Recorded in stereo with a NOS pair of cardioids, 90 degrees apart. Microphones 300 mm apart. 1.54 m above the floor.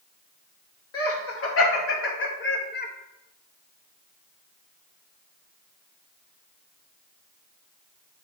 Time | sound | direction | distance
0.9 | laughter | 50° left | 3 m